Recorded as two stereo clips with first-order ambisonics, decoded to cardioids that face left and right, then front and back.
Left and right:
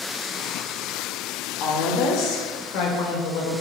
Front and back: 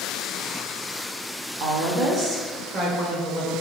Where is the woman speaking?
140° left, 2.5 m; by 3.5 s 110° left, 3.5 m.